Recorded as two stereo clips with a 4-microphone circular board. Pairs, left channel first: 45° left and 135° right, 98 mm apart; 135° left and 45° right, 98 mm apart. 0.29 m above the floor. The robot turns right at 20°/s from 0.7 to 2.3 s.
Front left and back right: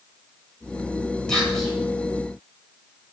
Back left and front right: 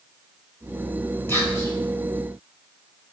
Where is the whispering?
120° left, 1.3 m; by 1.7 s 130° left, 1.3 m.